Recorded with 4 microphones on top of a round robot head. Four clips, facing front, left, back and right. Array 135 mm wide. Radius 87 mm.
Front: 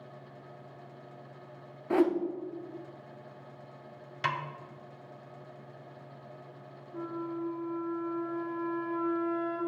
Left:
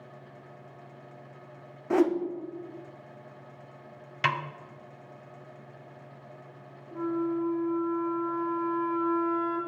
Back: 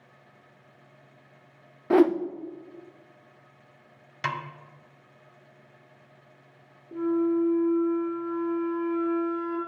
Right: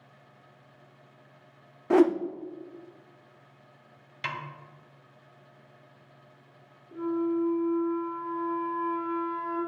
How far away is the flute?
About 4 m.